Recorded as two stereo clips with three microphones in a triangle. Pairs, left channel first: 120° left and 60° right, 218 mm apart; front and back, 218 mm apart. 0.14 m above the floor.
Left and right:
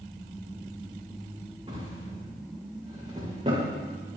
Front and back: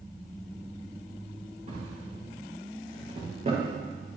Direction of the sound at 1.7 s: 125° right.